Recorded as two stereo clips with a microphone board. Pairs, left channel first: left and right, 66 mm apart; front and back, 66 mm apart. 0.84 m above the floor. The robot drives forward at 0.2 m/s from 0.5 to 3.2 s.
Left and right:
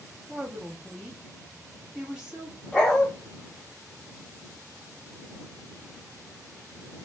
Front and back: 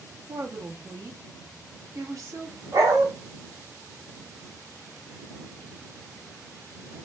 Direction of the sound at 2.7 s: 170° left.